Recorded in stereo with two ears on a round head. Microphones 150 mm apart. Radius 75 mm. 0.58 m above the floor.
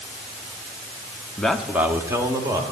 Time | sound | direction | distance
1.4 | a man speaking | 5° left (ahead or behind) | 0.7 m